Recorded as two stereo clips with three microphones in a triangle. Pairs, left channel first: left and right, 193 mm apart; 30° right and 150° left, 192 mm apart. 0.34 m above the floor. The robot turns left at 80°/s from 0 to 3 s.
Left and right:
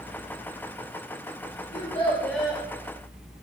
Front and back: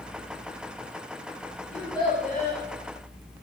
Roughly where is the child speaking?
Ahead left.